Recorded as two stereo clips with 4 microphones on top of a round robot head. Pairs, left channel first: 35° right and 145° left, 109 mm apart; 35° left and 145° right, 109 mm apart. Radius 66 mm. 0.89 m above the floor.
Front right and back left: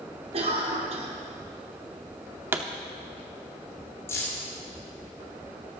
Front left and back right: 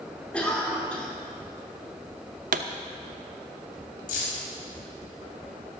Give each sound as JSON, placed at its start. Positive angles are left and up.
{"t": 0.3, "sound": "a cough", "azimuth_deg": 115, "distance_m": 3.0}
{"t": 2.5, "sound": "a pop", "azimuth_deg": -140, "distance_m": 0.8}
{"t": 4.1, "sound": "keys jangling", "azimuth_deg": 35, "distance_m": 4.0}